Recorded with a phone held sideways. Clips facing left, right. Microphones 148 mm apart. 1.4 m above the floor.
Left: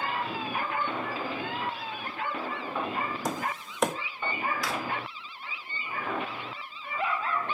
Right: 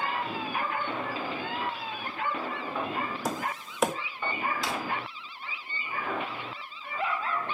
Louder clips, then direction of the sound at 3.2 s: Even; centre (ahead or behind).